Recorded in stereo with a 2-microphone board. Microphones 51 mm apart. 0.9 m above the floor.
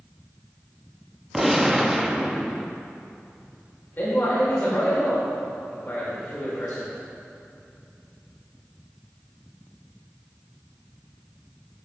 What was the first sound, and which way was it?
A gunshot, 5° right (ahead or behind).